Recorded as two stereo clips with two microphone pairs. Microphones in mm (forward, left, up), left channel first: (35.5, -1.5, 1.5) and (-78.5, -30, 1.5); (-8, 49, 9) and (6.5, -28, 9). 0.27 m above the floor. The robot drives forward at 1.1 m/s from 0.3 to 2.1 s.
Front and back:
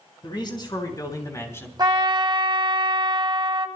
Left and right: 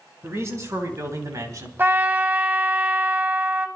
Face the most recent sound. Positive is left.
turn(degrees=-140)